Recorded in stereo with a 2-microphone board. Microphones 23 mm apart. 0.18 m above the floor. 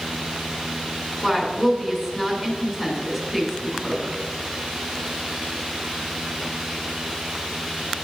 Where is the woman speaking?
Centre (ahead or behind), 2 m.